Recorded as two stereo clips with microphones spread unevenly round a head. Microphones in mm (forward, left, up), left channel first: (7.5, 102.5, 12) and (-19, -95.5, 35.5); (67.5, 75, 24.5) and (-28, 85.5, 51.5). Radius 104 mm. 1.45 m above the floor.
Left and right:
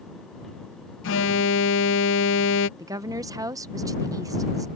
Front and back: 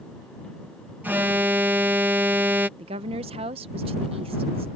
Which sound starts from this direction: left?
An alarm, at 1.0 s.